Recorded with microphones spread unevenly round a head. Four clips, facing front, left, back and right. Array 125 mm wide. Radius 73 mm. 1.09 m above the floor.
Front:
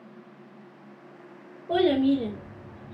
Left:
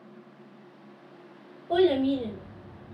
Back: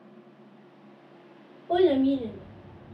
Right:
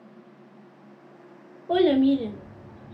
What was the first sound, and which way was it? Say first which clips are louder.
A child speaking: right 3 dB, even; 65° right.